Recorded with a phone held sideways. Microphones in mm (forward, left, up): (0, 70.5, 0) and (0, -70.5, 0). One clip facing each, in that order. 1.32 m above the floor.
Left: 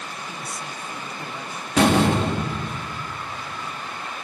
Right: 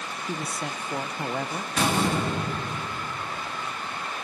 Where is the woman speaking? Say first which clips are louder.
Right 3 dB; 60° right (ahead or behind), 0.8 m.